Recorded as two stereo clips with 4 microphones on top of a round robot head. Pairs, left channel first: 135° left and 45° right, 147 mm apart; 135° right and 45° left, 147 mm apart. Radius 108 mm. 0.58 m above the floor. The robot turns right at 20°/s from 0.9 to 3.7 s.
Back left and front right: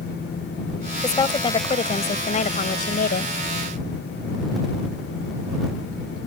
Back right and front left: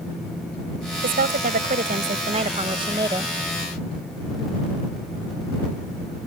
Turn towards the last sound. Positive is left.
turn(degrees=120)